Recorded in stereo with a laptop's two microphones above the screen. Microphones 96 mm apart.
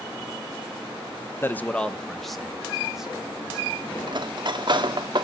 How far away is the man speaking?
About 0.7 m.